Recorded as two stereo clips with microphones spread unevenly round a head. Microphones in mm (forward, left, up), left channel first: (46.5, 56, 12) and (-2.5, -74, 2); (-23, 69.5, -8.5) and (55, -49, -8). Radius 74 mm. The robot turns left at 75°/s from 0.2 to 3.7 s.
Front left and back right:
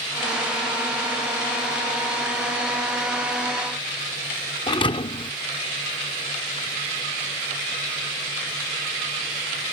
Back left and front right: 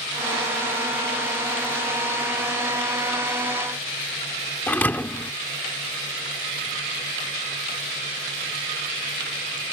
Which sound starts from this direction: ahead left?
A thud, at 4.7 s.